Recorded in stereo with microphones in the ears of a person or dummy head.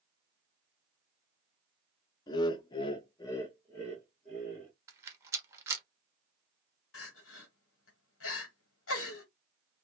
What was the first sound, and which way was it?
Laughter, 20° left (ahead or behind).